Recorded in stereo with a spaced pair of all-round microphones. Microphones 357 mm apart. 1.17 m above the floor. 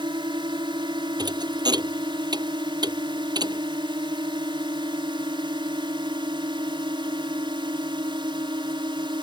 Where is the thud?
10° right (ahead or behind).